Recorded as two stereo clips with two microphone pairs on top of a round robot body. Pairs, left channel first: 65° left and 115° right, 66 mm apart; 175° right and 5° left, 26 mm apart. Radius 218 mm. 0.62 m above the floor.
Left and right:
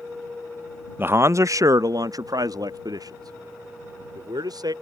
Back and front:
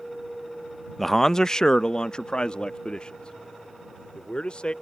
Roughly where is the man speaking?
Right.